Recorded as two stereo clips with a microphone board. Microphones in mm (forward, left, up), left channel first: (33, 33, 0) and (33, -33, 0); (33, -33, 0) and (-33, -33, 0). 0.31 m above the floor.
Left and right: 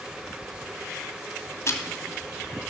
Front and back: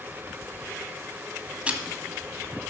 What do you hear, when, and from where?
1.7 s ticking: 115° left, 1.4 m